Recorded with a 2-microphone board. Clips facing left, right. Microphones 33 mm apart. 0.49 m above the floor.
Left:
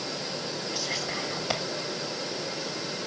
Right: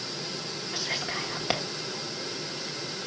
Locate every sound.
0.7 s whispering: 25° right (ahead or behind), 0.8 m